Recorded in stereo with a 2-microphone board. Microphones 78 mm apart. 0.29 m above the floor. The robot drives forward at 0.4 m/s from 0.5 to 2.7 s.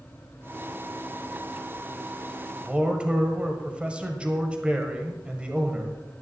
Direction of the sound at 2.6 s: 15° right (ahead or behind).